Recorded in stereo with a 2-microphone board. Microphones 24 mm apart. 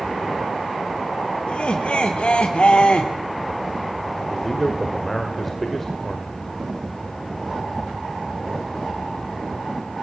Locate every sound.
1.5 s laughter: 55° left (ahead or behind), 1.3 m
4.3 s a man speaking: 15° left (ahead or behind), 1.9 m